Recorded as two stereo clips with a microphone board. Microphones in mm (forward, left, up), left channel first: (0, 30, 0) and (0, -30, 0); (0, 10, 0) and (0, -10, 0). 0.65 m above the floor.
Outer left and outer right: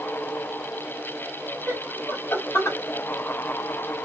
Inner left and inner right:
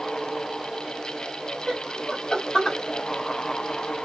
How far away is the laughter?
About 1.2 m.